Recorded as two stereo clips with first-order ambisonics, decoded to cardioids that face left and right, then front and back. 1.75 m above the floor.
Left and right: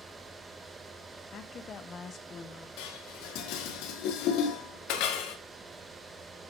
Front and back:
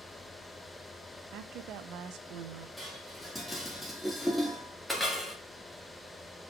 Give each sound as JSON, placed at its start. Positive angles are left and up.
{"t": 1.3, "sound": "a woman speaking", "azimuth_deg": 145, "distance_m": 1.0}
{"t": 2.8, "sound": "dishes clattering", "azimuth_deg": 90, "distance_m": 2.5}